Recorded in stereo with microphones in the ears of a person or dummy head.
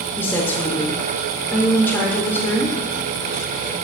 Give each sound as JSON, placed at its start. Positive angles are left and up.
{"t": 0.2, "sound": "a woman speaking", "side_deg": 15, "distance_m": 0.6}